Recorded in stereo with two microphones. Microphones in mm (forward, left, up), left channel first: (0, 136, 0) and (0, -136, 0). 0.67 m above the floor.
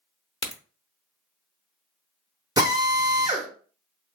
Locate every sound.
0.4 s a crack: 25° right (ahead or behind), 0.7 m
2.6 s a drill: 15° right (ahead or behind), 0.8 m